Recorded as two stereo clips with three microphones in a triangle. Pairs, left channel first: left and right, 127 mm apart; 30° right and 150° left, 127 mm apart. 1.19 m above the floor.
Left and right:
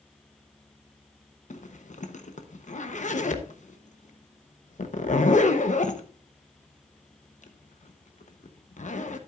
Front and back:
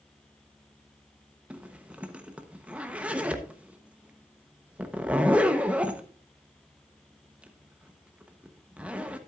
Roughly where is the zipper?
Left.